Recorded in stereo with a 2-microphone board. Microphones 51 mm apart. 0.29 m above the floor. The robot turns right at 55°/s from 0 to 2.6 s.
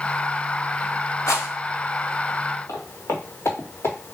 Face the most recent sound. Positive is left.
turn(degrees=55)  # may be behind; listen again after turning